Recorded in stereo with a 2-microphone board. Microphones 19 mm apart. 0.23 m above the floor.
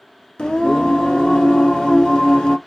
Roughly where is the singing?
Left.